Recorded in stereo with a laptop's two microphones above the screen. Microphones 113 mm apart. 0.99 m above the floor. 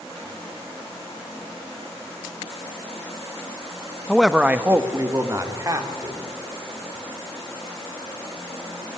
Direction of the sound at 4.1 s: 5° left (ahead or behind).